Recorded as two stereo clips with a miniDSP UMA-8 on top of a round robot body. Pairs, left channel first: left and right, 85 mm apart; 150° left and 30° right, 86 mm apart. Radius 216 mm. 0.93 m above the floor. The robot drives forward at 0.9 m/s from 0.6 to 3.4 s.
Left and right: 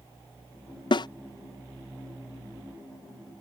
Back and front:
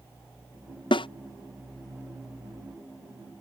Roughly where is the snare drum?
Behind left.